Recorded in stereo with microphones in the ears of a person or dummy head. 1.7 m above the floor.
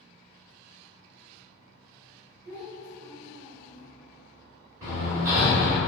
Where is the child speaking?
60° right (ahead or behind), 1.0 m; by 3.8 s 35° right (ahead or behind), 0.9 m.